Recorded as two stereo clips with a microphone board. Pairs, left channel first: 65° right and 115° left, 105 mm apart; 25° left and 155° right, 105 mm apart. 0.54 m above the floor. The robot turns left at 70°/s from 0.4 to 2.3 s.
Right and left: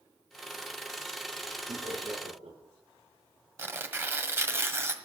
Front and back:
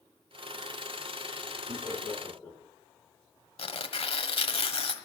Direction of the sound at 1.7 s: 145° left.